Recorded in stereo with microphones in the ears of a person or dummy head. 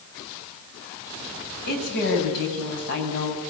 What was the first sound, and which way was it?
A woman speaking, 60° left (ahead or behind).